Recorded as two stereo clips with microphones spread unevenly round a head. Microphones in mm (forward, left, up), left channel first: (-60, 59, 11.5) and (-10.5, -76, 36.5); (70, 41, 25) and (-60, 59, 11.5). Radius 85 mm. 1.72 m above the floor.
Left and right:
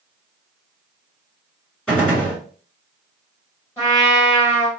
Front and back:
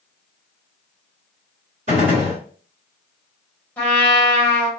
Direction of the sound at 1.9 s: 155° right.